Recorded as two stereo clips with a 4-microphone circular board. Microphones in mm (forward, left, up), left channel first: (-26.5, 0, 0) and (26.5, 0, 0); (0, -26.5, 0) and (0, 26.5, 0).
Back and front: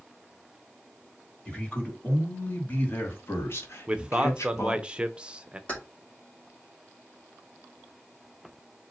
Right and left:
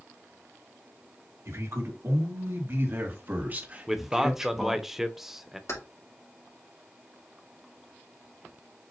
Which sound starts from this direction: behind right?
Keys jangling, at 5.7 s.